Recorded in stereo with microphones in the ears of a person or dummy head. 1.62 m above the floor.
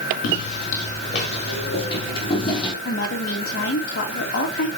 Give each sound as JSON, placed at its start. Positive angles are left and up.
{"t": 0.2, "sound": "footsteps", "side_deg": 40, "distance_m": 4.5}
{"t": 2.9, "sound": "a woman speaking", "side_deg": 50, "distance_m": 2.0}